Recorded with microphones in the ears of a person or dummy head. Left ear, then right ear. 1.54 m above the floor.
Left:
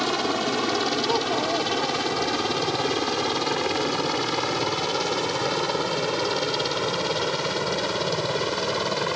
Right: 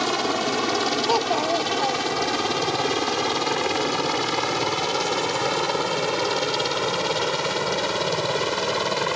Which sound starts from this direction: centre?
A helicopter, at 0.0 s.